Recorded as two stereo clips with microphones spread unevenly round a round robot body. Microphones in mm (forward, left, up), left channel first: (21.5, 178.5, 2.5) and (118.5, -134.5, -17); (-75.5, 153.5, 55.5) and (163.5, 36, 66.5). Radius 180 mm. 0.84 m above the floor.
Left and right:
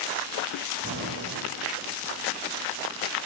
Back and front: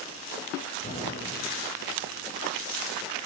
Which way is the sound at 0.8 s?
135° right.